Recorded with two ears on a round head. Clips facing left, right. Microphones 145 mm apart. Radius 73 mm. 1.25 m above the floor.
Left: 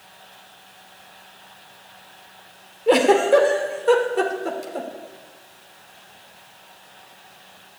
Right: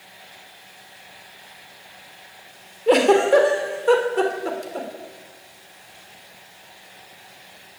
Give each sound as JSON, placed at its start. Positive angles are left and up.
{"t": 2.9, "sound": "a giggle", "side_deg": 0, "distance_m": 3.0}